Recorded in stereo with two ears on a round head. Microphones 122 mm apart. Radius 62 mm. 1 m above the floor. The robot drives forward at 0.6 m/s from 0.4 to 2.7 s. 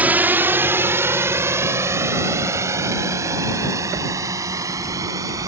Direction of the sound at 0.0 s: 15° right (ahead or behind).